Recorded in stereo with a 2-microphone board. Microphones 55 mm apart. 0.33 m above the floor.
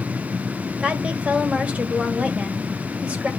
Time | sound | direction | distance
0.8 | a woman speaking | 25° right (ahead or behind) | 1.3 m